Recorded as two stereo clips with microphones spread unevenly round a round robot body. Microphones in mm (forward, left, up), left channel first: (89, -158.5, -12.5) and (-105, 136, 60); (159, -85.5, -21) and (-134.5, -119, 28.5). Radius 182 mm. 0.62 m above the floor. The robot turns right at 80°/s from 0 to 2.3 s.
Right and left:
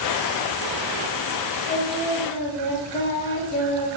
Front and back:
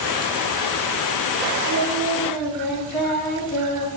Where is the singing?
105° right, 1.7 m; by 3.9 s 50° right, 1.7 m.